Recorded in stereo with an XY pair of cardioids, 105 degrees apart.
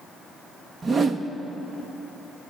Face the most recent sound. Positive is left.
turn(degrees=-40)